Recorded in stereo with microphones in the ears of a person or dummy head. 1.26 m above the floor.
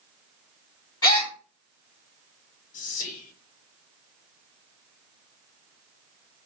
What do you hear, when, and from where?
1.0 s a gasp: 20° left (ahead or behind), 0.7 m
2.7 s whispering: 35° left (ahead or behind), 0.7 m